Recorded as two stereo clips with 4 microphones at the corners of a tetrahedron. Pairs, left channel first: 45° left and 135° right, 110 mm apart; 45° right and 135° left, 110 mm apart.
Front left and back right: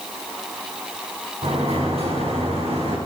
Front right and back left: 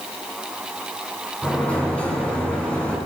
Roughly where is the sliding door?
Behind right.